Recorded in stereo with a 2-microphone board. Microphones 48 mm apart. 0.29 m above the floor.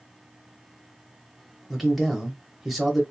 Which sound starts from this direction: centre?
A man speaking, at 1.7 s.